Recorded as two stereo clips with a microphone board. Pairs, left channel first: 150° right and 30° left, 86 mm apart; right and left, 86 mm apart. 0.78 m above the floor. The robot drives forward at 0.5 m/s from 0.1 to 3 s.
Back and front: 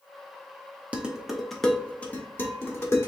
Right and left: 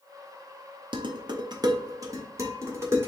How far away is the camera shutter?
I don't hear a camera shutter.